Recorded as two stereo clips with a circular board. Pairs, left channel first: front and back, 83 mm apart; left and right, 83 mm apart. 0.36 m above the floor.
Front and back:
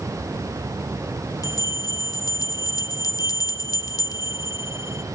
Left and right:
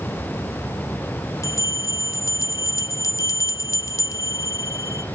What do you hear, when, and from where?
1.4 s a bell: 40° left, 0.8 m